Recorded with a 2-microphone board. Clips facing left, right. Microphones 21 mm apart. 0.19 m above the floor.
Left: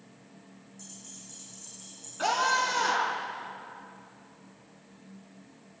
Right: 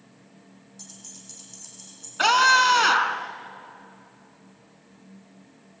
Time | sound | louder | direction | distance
0.8 | keys jangling | right 3 dB | 45° right (ahead or behind) | 6.5 m
2.2 | a scream | right 9 dB | 50° right (ahead or behind) | 1.6 m